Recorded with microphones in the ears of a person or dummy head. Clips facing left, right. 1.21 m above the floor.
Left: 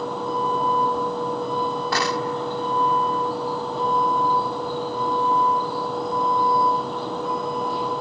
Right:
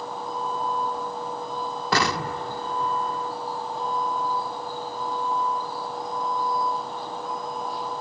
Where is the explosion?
60° right (ahead or behind).